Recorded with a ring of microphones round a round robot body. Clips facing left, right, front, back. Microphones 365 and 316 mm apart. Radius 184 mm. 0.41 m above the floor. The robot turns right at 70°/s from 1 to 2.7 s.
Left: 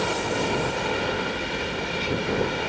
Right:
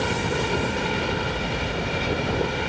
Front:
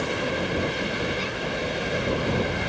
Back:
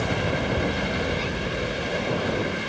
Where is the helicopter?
150° right; by 2.7 s 30° right.